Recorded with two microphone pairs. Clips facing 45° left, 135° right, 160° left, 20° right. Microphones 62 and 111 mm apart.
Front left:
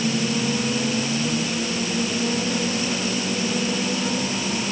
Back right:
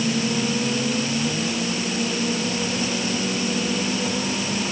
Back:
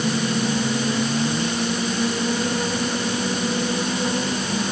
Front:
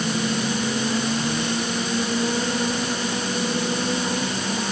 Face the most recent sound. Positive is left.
No sound to turn to.